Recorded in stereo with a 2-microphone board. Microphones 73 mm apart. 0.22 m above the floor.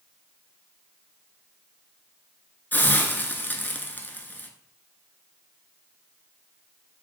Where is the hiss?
30° left (ahead or behind), 0.6 m.